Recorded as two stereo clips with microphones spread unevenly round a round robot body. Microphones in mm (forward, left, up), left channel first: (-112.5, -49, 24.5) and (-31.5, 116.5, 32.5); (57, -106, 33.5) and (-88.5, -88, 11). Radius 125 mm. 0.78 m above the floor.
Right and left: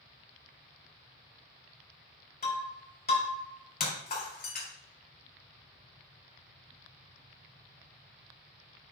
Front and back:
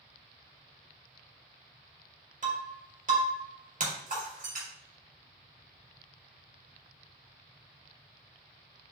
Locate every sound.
2.4 s breaking glass: 155° right, 4 m